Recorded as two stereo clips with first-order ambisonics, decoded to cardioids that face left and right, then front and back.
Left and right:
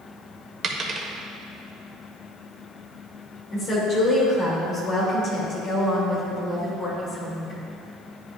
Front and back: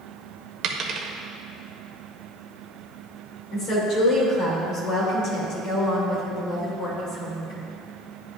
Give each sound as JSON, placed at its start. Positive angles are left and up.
{"t": 0.6, "sound": "a dropped coin", "azimuth_deg": -145, "distance_m": 0.6}
{"t": 3.5, "sound": "a woman speaking", "azimuth_deg": 40, "distance_m": 2.5}